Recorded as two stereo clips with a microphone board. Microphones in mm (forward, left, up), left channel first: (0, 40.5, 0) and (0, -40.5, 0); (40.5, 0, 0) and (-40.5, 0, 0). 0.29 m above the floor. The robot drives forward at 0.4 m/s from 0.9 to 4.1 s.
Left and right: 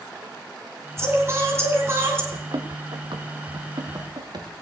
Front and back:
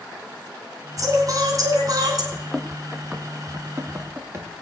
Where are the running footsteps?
85° right, 1.9 m; by 4.5 s 125° right, 3.5 m.